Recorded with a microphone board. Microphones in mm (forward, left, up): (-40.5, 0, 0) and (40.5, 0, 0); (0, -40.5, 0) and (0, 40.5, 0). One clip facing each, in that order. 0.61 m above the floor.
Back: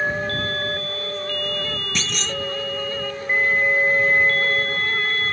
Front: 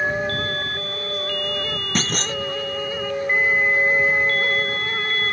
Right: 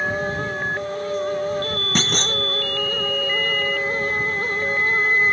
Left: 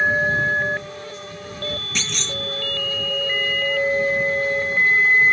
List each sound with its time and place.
1.9 s a clunk: 45° right